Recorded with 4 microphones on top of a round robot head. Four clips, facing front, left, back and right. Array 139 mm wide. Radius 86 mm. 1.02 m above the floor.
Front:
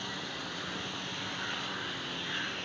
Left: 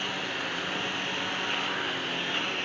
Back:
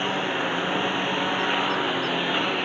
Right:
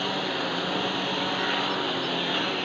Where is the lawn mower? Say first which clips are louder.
Right 6 dB, back 15 dB; 150° right; by 2.6 s 155° right.